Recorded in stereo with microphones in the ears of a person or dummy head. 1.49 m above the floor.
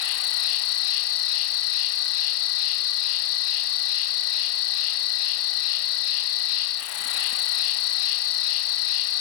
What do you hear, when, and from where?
0.0 s an insect: 70° left (ahead or behind), 0.8 m